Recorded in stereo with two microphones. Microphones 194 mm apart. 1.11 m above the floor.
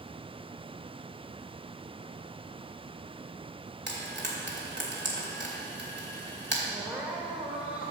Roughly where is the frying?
Right.